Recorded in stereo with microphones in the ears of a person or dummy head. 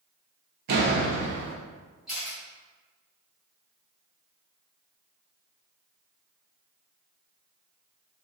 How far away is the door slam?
About 0.6 m.